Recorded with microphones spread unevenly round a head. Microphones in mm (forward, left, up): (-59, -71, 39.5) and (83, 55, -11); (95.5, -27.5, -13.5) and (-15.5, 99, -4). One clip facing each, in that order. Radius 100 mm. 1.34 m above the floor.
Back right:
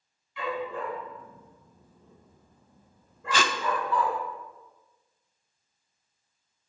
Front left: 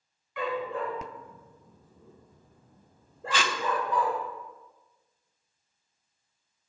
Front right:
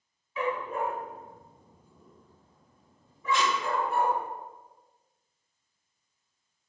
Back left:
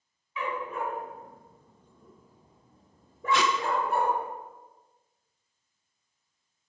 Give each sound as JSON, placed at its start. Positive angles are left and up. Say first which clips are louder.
{"t": 0.4, "sound": "a dog barking", "louder": "front left 1 dB, front right 3 dB", "azimuth_deg": 0, "distance_m": 2.0}
{"t": 3.3, "sound": "tape being pulled", "louder": "back right 2 dB, back left 2 dB", "azimuth_deg": 165, "distance_m": 0.5}